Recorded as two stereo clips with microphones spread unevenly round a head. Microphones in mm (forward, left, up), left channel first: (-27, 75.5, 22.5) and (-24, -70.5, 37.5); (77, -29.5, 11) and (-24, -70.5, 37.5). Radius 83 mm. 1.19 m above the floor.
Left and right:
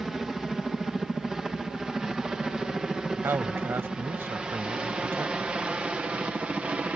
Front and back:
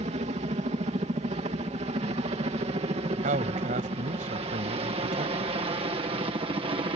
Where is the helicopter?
Straight behind; by 7.0 s 170° right.